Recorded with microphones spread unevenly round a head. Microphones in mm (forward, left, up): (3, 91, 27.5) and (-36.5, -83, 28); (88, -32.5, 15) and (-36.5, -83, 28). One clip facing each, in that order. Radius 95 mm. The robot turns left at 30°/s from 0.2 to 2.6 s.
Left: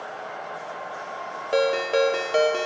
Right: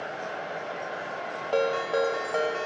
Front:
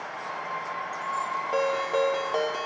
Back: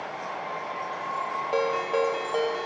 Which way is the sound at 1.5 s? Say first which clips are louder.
Left 4 dB, even; 140° left.